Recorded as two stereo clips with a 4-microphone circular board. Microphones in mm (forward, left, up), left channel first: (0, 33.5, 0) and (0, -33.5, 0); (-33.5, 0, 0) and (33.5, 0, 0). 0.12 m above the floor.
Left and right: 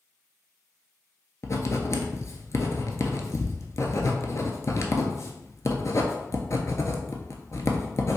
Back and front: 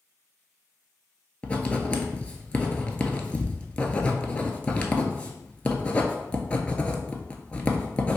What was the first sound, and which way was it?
Writing, 115° left.